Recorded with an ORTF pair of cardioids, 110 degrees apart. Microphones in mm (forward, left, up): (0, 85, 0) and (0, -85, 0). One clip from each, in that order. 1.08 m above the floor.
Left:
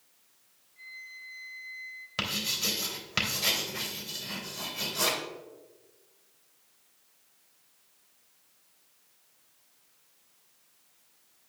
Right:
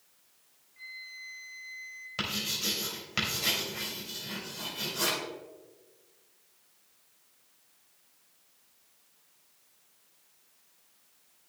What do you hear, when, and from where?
0.8 s a flute: 15° right, 2 m
2.2 s writing: 25° left, 3 m